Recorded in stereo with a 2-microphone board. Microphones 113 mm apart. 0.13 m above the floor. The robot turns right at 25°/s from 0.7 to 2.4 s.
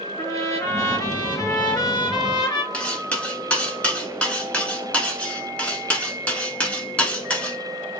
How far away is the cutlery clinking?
About 1.0 m.